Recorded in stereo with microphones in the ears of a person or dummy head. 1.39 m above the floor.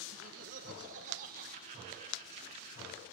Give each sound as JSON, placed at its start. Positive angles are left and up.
{"t": 0.1, "sound": "laughter", "side_deg": -40, "distance_m": 0.6}